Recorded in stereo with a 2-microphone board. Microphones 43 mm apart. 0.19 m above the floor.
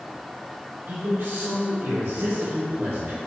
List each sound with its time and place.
0.9 s a man speaking: 60° right (ahead or behind), 2.5 m